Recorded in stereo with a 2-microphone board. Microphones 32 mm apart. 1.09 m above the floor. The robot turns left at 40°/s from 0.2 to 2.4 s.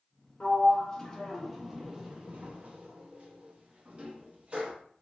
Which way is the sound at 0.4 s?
35° left (ahead or behind).